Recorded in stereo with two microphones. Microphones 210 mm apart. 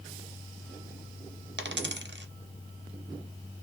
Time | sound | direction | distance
1.6 | a dropped coin | 55° right (ahead or behind) | 0.7 m